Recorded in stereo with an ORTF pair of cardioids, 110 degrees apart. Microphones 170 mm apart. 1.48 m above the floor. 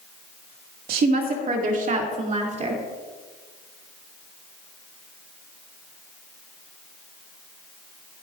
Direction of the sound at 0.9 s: 65° right.